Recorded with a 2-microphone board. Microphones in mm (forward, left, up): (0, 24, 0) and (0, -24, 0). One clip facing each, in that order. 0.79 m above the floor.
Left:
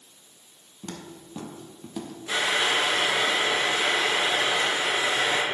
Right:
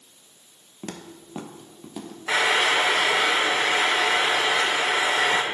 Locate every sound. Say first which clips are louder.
0.8 s footsteps: right 2 dB; 45° right (ahead or behind), 1.1 m; by 2.2 s centre (ahead or behind), 1.5 m
2.3 s frying: right 4 dB; 85° right, 1.5 m